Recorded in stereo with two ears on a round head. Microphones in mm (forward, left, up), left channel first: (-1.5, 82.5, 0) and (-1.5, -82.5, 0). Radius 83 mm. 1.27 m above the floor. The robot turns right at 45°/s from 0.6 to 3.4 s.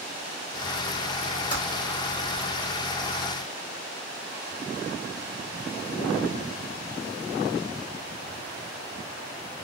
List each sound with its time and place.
1.5 s typing on a keyboard: 25° left (ahead or behind), 2.0 m; by 1.6 s 30° left (ahead or behind), 2.0 m